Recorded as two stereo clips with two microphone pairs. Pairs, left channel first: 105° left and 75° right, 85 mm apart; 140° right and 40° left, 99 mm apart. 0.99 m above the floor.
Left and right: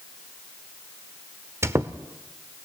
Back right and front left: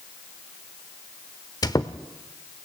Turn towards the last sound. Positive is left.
turn(degrees=-115)